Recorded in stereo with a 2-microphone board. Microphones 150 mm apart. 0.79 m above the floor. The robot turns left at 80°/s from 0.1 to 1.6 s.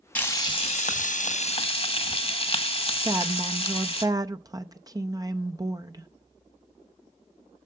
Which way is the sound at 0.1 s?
170° left.